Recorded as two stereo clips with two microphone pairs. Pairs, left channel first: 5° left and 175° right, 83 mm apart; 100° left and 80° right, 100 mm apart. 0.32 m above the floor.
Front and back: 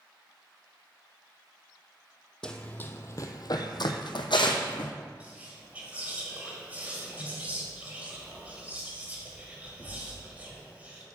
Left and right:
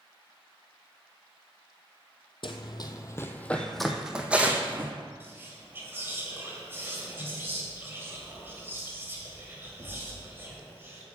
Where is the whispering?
125° right, 1.5 m.